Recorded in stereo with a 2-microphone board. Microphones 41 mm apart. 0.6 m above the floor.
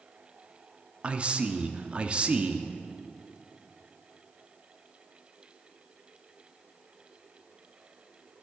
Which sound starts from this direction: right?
A man speaking, at 1.0 s.